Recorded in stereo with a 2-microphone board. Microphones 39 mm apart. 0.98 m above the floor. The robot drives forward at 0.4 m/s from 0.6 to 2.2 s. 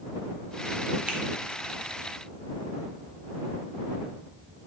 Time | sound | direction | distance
1.1 | a finger snap | 30° right (ahead or behind) | 0.7 m